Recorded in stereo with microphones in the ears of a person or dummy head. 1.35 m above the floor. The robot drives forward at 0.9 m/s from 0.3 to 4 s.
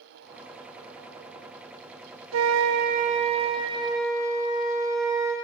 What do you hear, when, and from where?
2.3 s a flute: 75° right (ahead or behind), 0.6 m; by 5.3 s 20° right (ahead or behind), 1.5 m